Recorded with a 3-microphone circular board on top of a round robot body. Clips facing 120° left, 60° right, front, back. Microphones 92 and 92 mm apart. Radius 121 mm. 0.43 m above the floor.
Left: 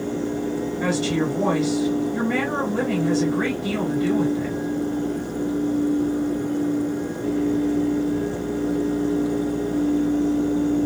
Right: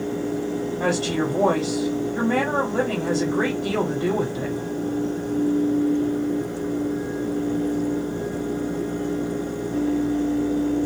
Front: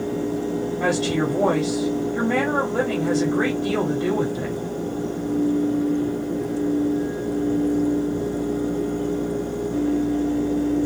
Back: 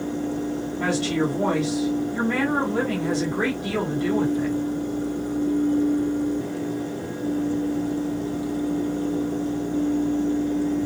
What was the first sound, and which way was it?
A woman speaking, 50° right.